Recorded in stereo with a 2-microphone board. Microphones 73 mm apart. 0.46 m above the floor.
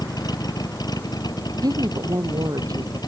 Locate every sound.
0.0 s a vehicle: 65° left (ahead or behind); by 3.1 s 70° left (ahead or behind)
1.6 s a woman speaking: 60° right (ahead or behind)